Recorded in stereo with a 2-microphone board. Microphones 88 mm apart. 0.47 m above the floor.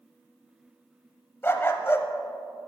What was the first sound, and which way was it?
A dog barking, 25° left (ahead or behind).